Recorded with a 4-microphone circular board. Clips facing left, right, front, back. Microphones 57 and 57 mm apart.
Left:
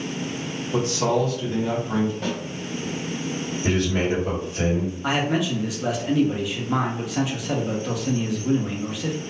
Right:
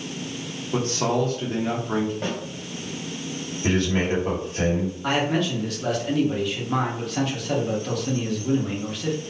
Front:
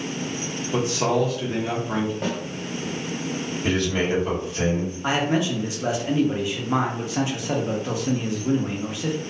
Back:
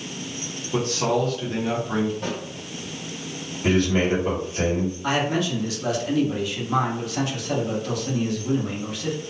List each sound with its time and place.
0.7 s a man speaking: 70° right, 1.0 m
2.2 s a snare drum: 35° right, 1.4 m
3.6 s a man speaking: 105° right, 1.6 m
5.0 s a man speaking: 15° left, 0.7 m